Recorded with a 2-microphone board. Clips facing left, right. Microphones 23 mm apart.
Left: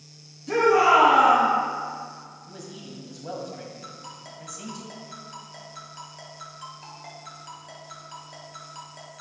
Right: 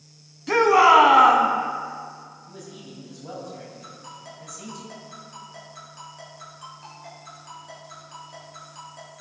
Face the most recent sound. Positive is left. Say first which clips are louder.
# even
turn(degrees=15)  # may be behind; listen again after turning